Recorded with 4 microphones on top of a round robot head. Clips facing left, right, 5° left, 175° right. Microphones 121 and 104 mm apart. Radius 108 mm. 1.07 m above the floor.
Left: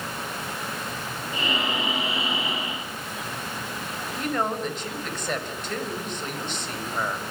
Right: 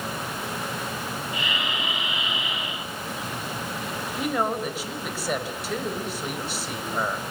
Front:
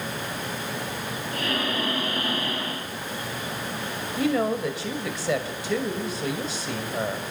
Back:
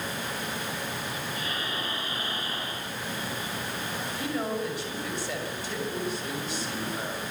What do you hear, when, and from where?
1.3 s breathing: 35° left, 6.5 m
4.2 s a woman speaking: 5° right, 6 m